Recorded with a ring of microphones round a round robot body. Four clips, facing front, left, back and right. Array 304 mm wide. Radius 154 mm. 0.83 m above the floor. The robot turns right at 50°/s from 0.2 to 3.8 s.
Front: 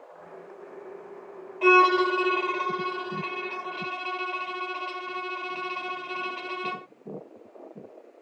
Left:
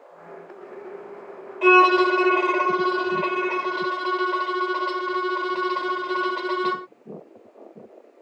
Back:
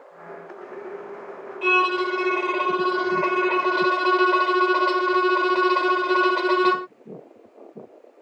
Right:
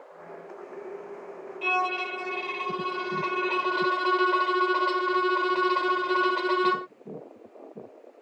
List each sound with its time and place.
1.6 s a violin: 70° left; by 6.9 s straight behind